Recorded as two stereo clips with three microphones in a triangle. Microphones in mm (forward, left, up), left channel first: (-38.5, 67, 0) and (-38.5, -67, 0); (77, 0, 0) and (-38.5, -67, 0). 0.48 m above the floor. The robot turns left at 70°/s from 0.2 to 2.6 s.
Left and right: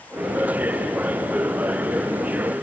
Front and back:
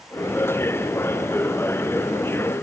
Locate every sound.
Only background noise.